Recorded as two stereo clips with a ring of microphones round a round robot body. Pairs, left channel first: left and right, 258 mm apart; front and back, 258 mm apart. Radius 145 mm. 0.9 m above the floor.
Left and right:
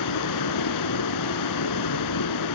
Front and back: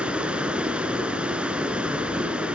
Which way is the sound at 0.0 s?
95° left.